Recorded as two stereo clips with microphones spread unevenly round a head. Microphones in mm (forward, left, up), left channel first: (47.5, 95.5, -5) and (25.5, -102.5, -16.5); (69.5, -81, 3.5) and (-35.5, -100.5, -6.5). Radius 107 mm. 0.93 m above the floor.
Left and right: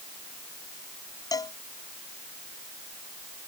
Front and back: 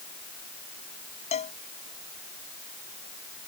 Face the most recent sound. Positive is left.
turn(degrees=15)